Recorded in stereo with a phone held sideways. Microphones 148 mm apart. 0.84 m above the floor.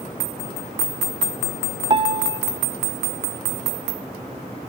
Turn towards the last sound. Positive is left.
turn(degrees=-35)  # may be behind; listen again after turning